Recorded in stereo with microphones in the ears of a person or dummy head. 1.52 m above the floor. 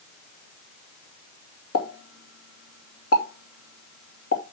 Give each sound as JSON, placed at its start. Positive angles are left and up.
{"t": 1.7, "sound": "a pop", "side_deg": 85, "distance_m": 2.5}